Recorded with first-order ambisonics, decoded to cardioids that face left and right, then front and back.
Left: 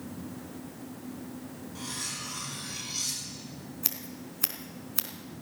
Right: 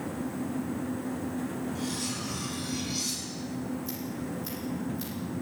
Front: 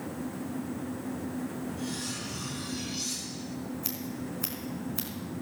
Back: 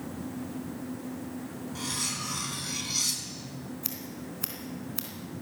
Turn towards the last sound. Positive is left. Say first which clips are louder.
# right 3 dB, front 2 dB
turn(degrees=95)